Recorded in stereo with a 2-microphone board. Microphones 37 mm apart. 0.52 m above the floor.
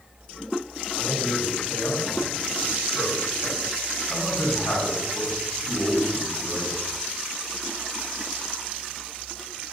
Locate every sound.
0.9 s a man speaking: 50° left (ahead or behind), 4 m